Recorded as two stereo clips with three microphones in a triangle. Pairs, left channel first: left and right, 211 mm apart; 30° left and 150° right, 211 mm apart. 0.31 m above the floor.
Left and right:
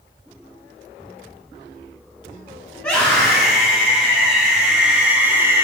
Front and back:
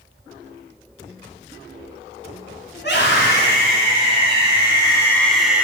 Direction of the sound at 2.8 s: 15° left.